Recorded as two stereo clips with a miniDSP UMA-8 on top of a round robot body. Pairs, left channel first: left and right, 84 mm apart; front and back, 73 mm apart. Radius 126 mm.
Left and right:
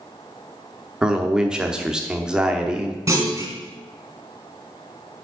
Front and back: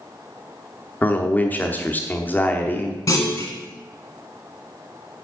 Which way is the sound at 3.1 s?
35° right.